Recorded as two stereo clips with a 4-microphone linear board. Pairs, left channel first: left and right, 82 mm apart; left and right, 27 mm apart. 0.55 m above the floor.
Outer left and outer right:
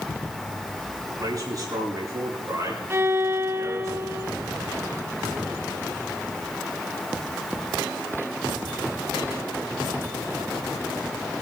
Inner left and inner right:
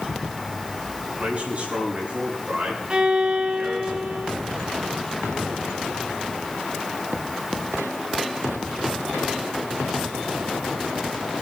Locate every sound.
1.1 s a man speaking: 45° right (ahead or behind), 4.5 m; by 3.9 s 35° right (ahead or behind), 5.5 m
2.9 s a violin: 30° right (ahead or behind), 0.9 m